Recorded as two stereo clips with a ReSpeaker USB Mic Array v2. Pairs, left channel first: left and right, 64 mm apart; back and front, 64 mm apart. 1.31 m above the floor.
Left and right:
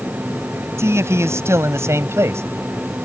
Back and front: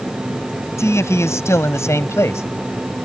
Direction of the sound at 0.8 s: 135° right.